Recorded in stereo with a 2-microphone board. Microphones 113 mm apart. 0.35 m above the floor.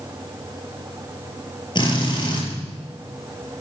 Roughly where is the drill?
Left.